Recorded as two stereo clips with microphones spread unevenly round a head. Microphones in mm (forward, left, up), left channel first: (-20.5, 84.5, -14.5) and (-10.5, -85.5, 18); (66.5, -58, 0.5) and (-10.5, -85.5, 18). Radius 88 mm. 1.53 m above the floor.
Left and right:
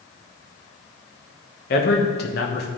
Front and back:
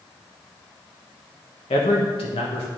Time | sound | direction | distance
1.7 | a man speaking | 55° left | 1.2 m